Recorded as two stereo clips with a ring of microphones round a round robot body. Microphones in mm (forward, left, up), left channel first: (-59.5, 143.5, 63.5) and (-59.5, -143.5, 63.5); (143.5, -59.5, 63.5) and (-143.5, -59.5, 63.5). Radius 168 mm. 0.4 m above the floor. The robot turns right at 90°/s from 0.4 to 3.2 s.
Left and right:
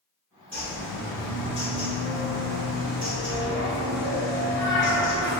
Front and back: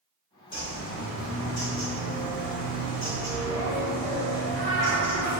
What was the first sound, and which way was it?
A bird, 40° right.